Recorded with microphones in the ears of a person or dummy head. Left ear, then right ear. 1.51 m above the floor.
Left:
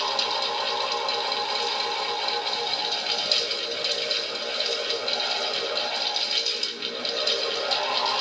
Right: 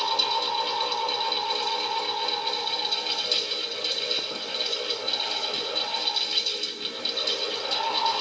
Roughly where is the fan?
Centre.